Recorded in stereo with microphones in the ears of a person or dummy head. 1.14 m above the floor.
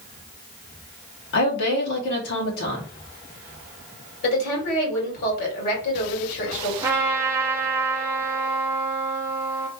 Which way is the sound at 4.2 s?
55° left (ahead or behind).